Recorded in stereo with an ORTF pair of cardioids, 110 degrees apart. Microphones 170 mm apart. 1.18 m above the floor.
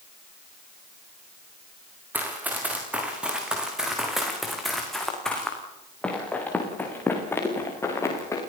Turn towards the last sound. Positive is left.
turn(degrees=20)